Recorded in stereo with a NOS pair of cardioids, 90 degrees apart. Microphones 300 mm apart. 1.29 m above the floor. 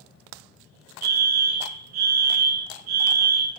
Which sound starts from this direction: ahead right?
A fire alarm, at 1.0 s.